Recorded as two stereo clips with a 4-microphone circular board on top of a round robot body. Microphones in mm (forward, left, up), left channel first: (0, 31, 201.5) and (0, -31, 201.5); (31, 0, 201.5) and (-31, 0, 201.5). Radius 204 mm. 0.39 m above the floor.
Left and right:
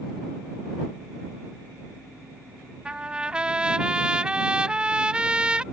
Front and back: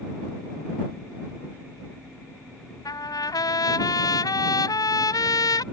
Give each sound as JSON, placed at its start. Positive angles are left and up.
{"t": 2.9, "sound": "a trumpet", "azimuth_deg": -15}